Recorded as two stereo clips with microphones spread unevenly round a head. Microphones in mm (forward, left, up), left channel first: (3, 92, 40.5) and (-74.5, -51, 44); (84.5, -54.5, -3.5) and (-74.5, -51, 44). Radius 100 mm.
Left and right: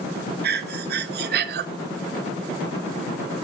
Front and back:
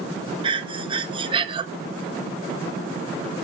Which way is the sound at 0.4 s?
110° right.